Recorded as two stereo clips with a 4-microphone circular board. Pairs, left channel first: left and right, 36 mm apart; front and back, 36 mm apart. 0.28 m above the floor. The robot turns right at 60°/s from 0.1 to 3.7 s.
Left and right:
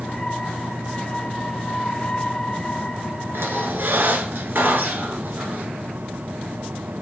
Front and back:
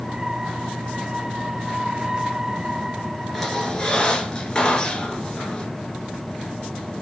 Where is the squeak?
90° right, 1.5 m; by 5.7 s 65° right, 1.5 m.